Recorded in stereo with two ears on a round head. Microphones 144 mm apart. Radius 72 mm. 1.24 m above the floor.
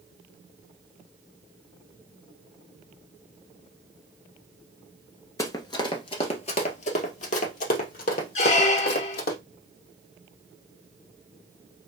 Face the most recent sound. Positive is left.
turn(degrees=45)  # may be behind; listen again after turning